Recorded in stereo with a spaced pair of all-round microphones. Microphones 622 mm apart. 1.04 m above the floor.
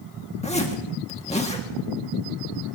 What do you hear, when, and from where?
0.4 s a zipper: 10° left (ahead or behind), 1.7 m